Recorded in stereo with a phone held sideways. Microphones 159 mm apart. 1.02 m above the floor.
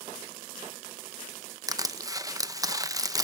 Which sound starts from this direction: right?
Crushing, at 1.7 s.